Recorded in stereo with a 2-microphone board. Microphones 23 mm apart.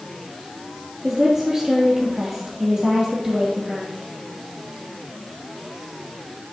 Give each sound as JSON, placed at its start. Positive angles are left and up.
{"t": 1.0, "sound": "a woman speaking", "side_deg": -25, "distance_m": 3.0}